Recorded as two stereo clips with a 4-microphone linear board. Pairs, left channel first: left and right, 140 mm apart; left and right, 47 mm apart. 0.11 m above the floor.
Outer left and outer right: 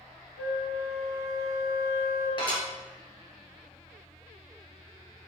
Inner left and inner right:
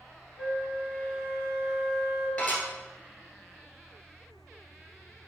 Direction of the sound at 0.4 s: 5° right (ahead or behind).